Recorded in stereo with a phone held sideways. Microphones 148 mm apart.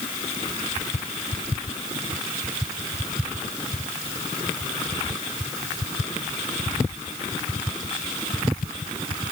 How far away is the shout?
I don't hear a shout.